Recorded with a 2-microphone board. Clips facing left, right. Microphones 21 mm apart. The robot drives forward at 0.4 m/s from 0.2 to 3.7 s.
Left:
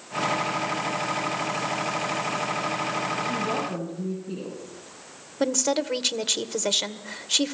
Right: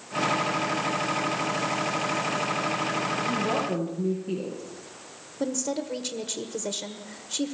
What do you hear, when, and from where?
3.3 s a woman speaking: 85° right, 9.5 m
5.4 s a woman speaking: 55° left (ahead or behind), 1.4 m